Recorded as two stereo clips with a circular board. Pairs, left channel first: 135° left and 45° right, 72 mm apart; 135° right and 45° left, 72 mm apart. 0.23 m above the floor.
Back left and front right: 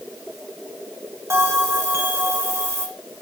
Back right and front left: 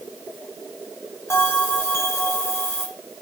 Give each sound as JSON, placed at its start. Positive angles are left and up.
{"t": 1.3, "sound": "a bell", "azimuth_deg": -90, "distance_m": 1.6}